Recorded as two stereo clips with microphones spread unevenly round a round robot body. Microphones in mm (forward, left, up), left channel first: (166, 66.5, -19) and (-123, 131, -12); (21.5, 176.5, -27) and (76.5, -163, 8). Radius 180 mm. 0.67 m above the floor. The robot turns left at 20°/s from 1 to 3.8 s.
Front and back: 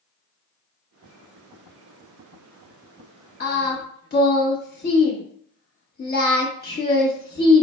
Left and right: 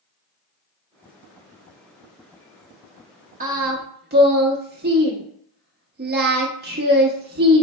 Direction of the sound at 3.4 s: 25° right.